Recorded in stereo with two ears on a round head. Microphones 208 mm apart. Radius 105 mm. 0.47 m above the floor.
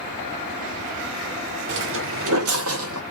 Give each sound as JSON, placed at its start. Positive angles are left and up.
{"t": 1.7, "sound": "footsteps", "side_deg": -50, "distance_m": 0.7}